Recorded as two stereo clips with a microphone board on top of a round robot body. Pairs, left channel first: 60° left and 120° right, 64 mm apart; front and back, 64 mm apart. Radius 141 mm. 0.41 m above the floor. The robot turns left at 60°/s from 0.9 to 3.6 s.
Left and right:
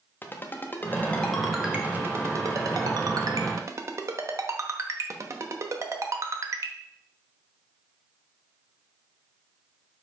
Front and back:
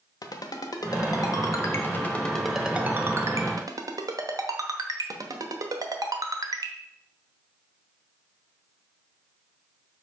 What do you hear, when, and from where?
0.2 s a ringtone: 5° left, 0.9 m; by 6.7 s 160° right, 0.9 m